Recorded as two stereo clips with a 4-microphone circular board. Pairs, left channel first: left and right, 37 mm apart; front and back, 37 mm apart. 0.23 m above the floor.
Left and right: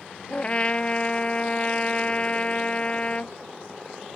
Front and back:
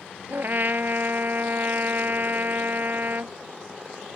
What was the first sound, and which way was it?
A trumpet, 145° left.